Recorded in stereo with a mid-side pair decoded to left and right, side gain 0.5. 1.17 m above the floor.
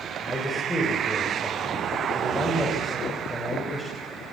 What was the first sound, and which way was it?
A man speaking, 10° left.